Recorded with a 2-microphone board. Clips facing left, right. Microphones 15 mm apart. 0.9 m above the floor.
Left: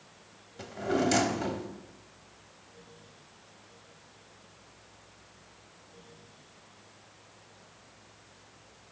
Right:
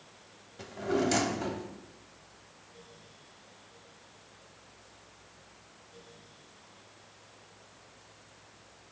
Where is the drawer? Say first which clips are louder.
Left 1 dB; centre (ahead or behind), 0.6 m.